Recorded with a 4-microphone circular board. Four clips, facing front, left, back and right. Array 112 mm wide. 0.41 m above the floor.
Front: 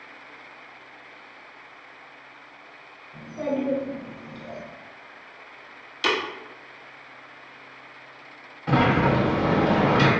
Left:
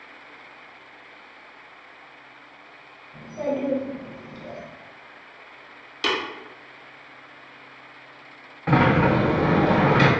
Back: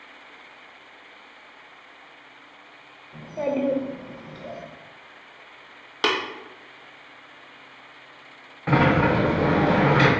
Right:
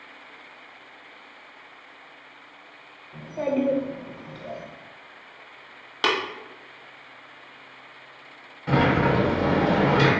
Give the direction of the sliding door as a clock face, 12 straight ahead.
8 o'clock.